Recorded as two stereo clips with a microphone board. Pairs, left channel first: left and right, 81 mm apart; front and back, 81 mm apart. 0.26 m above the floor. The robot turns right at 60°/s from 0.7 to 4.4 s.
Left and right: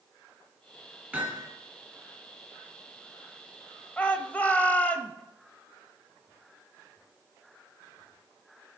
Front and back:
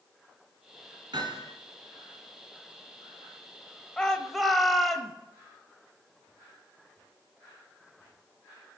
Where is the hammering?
160° right, 3.5 m; by 1.5 s 135° right, 3.5 m.